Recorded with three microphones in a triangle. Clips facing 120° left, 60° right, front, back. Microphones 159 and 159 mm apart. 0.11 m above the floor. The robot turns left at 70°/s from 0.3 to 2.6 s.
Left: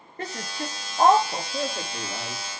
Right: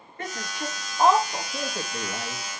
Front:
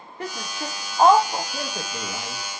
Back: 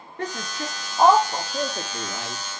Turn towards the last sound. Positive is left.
turn(degrees=-80)